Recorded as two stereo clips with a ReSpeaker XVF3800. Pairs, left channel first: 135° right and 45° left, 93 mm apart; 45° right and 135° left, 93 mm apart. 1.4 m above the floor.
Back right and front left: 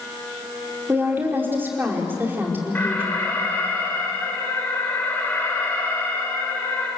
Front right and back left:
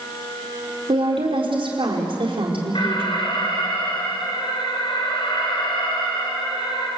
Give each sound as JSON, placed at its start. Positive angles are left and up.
{"t": 0.9, "sound": "a woman speaking", "azimuth_deg": 115, "distance_m": 4.5}
{"t": 2.8, "sound": "an alarm", "azimuth_deg": -70, "distance_m": 4.0}